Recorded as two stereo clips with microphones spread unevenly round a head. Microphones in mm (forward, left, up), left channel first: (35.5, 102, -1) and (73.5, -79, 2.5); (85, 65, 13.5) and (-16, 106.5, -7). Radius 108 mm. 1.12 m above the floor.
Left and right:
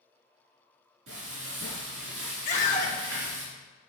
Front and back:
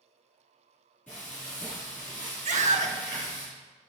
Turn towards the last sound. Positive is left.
turn(degrees=160)